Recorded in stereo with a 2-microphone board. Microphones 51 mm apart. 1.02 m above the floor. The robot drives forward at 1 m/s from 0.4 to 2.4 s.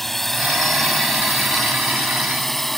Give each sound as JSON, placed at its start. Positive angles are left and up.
{"t": 0.0, "sound": "a drone", "side_deg": 5}